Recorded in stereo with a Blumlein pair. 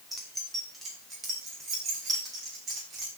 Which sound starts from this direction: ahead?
Keys jangling, at 0.1 s.